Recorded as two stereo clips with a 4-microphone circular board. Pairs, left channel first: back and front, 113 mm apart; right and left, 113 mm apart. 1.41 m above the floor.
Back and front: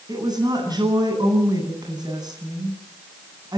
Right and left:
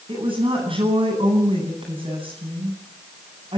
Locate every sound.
0.1 s a woman speaking: 55° left, 9.5 m